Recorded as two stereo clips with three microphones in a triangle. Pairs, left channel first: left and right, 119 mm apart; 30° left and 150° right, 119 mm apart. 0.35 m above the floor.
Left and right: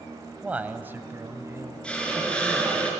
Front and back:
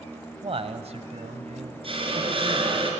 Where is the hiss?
170° left, 4 m.